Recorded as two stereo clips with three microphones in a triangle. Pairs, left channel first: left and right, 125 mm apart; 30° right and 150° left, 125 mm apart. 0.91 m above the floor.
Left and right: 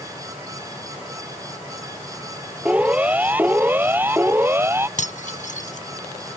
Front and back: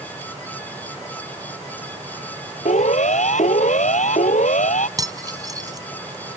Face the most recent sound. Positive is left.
turn(degrees=90)